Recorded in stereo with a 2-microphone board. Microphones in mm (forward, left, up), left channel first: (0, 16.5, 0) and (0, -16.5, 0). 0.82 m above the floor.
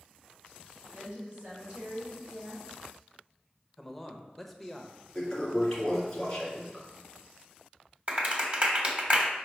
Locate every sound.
0.9 s a woman speaking: 30° right (ahead or behind), 3 m
3.8 s a man speaking: 5° left (ahead or behind), 0.9 m
5.2 s a toilet flushing: 15° left (ahead or behind), 2.5 m
8.1 s a clap: 40° right (ahead or behind), 1.2 m